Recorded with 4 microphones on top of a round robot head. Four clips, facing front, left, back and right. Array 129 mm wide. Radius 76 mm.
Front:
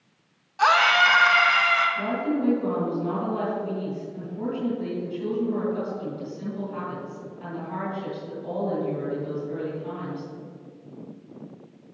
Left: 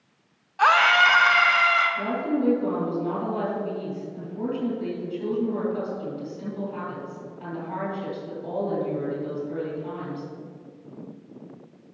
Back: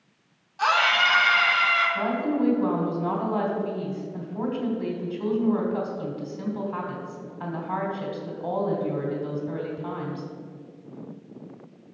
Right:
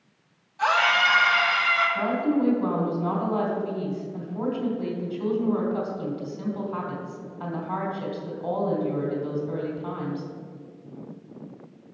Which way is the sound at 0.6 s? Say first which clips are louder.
Left 4 dB, front 3 dB; 70° left.